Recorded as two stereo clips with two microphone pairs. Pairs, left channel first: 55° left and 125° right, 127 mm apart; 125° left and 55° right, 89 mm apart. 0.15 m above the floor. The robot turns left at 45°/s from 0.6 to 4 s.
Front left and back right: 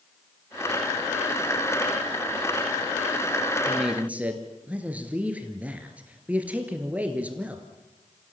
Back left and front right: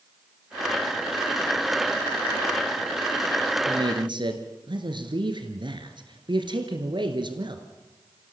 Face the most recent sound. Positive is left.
turn(degrees=-45)